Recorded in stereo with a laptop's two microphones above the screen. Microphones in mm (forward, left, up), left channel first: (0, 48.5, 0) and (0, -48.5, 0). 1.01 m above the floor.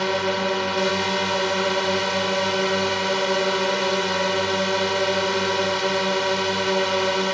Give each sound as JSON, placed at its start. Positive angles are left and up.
{"t": 0.0, "sound": "a drone", "side_deg": 0}